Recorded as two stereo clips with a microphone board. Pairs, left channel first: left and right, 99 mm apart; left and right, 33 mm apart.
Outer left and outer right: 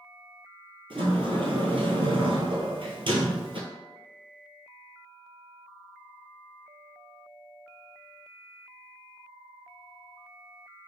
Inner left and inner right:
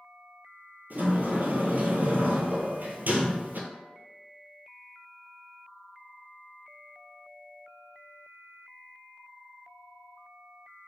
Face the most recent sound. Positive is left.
turn(degrees=-65)  # may be behind; listen again after turning